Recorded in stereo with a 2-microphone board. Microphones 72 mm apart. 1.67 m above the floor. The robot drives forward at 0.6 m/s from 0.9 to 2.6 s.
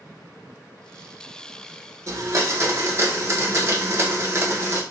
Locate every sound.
2.1 s a blender: 50° right (ahead or behind), 1.1 m; by 4.8 s 40° right (ahead or behind), 1.3 m